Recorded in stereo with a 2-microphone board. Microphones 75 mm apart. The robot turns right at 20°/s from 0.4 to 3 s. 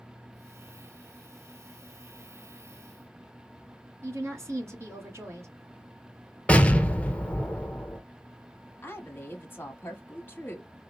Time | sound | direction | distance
4.0 | a woman speaking | 40° right (ahead or behind) | 1.4 m
6.5 | an explosion | 15° left (ahead or behind) | 0.6 m
8.8 | a woman speaking | 30° left (ahead or behind) | 1.3 m